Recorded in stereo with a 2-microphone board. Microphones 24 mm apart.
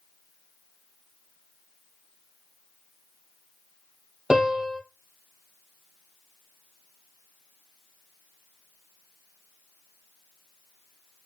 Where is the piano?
30° right (ahead or behind), 2 m.